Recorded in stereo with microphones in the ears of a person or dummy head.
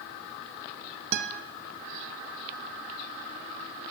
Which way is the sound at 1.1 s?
65° right (ahead or behind).